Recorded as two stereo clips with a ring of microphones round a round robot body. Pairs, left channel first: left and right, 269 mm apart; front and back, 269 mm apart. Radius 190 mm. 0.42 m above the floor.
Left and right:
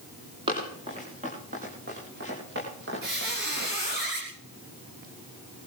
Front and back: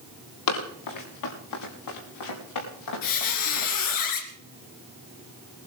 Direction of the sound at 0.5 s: 10° right.